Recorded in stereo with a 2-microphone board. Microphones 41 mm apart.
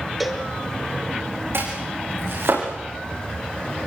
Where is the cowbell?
Centre (ahead or behind), 3.5 m.